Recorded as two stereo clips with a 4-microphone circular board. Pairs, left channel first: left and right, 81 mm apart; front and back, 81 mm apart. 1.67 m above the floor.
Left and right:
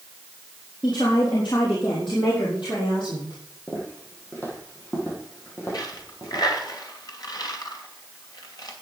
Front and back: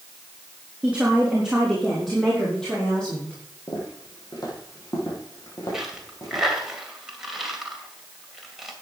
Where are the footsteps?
30° left, 4 m; by 6.4 s 40° left, 6 m.